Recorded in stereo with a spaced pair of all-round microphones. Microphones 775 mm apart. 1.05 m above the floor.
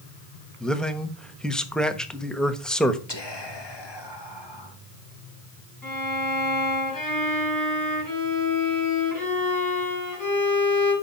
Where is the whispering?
30° left (ahead or behind), 2 m.